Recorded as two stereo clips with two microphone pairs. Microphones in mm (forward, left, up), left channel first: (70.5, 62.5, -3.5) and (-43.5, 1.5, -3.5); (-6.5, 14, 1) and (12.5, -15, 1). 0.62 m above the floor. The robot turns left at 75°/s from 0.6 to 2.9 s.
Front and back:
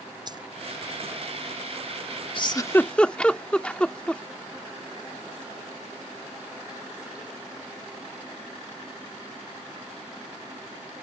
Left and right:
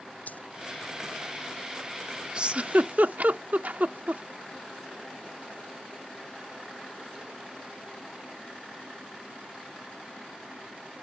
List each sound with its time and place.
0.3 s a dropped coin: 150° left
2.4 s a giggle: 10° right; by 4.2 s 50° right